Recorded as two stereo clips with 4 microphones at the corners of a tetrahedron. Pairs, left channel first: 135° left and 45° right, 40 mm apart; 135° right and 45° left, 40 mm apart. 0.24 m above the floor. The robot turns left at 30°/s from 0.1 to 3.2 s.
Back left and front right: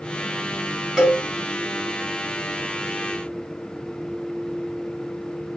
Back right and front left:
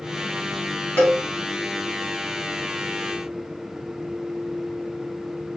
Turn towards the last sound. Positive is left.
turn(degrees=165)